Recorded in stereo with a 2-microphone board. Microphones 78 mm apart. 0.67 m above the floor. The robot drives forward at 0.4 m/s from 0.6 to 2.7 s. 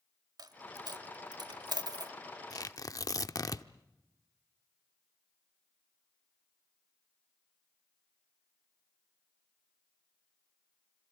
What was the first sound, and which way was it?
A dropped coin, 65° right (ahead or behind).